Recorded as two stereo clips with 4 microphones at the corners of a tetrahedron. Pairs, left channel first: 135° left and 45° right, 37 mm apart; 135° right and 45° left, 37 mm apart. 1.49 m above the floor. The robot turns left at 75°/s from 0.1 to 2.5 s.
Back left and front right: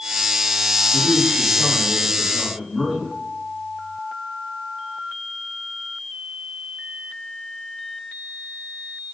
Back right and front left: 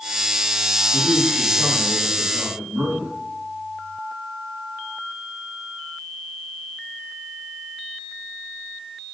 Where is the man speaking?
160° left, 3.5 m; by 3.1 s 40° left, 3.5 m.